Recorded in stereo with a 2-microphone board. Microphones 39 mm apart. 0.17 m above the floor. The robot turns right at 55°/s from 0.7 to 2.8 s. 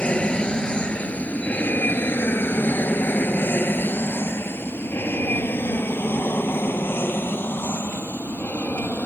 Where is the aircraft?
30° left (ahead or behind); by 9.1 s 65° left (ahead or behind).